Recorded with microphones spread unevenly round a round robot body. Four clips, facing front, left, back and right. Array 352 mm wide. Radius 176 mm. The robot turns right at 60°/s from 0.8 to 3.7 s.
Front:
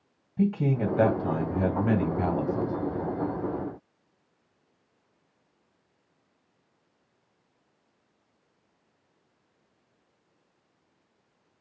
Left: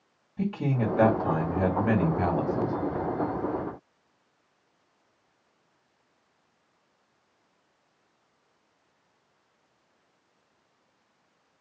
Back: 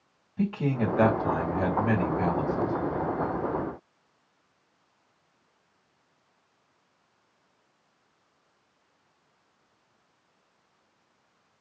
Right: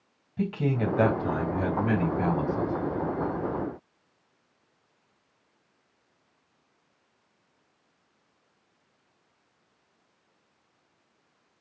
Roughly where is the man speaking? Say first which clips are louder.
Right 1 dB, front 2 dB; ahead right.